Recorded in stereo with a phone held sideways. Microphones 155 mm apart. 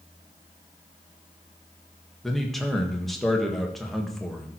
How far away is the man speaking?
About 1.5 m.